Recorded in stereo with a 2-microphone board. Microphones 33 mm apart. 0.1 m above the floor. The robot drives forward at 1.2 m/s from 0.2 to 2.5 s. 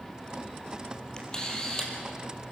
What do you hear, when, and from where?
1.2 s a camera shutter: 25° left (ahead or behind), 3.5 m; by 1.9 s 20° left (ahead or behind), 4 m